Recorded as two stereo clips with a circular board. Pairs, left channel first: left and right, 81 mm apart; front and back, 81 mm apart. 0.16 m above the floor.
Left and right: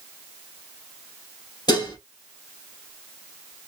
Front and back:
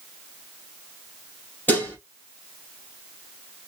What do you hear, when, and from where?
1.7 s dishes clattering: 65° left, 3 m